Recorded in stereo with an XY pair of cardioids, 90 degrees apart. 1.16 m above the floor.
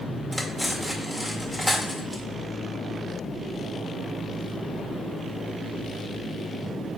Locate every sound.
0.3 s cutlery clinking: straight ahead, 1.8 m